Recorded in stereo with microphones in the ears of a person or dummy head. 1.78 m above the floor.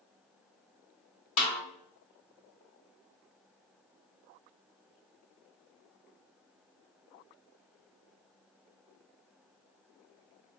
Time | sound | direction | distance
1.4 | a snare drum | 40° left (ahead or behind) | 1.7 m